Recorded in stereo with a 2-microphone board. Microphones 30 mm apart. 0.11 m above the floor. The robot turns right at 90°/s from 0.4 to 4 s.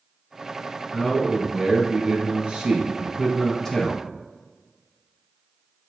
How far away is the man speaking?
About 1.4 m.